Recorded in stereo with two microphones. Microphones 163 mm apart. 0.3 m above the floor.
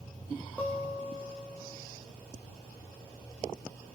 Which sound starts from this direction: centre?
A guitar, at 0.6 s.